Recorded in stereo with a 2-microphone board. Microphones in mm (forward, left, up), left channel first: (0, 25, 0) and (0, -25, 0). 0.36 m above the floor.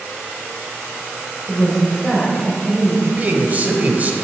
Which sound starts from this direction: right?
A man speaking, at 3.1 s.